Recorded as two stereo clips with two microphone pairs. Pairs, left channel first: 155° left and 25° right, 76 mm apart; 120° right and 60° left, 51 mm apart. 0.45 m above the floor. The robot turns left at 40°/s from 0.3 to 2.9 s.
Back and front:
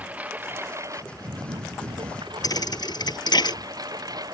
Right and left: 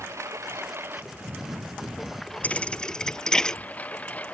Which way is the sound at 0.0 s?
45° left.